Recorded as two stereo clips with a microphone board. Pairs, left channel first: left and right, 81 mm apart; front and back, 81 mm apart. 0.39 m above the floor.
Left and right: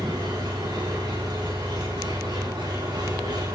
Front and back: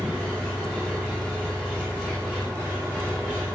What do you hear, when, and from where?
0.0 s an engine running: 70° right, 9.5 m